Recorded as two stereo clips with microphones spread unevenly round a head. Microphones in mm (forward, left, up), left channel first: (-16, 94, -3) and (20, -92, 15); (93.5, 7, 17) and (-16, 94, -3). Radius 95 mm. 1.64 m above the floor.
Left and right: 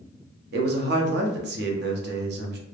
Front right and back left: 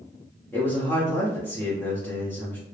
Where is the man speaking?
115° right, 0.6 m.